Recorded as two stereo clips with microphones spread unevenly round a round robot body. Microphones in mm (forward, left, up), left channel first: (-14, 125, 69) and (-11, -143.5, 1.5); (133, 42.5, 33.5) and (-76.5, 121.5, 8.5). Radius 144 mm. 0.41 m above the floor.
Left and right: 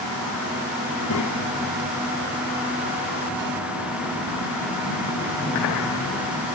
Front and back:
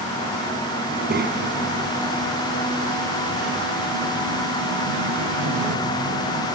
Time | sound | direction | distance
0.9 | a child speaking | 115° left | 3 m